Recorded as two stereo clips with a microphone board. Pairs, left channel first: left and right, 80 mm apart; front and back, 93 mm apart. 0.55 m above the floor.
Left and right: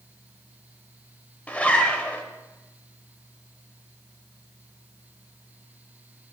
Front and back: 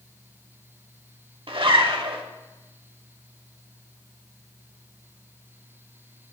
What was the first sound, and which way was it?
A zipper, 160° left.